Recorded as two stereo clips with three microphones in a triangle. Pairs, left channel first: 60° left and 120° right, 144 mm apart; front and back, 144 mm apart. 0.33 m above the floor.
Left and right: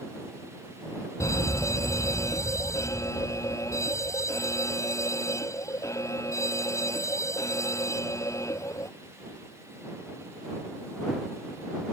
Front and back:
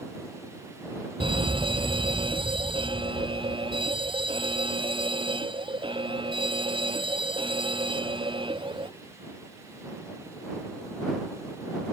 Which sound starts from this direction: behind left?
A fire alarm, at 1.2 s.